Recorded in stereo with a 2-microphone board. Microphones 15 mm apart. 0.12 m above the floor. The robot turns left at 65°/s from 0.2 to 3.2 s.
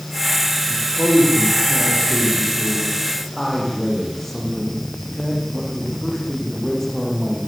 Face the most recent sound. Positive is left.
turn(degrees=20)